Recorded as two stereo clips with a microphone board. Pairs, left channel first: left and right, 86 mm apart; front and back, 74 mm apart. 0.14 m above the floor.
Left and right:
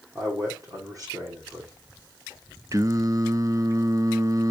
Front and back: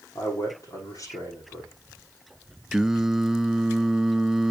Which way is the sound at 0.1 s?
45° right.